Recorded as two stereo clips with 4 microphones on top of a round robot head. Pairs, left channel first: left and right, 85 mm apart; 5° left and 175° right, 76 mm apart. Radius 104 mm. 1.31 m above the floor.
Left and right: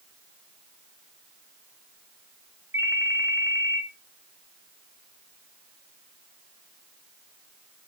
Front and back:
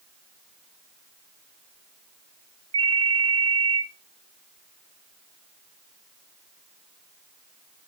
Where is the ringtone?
160° right, 0.8 m.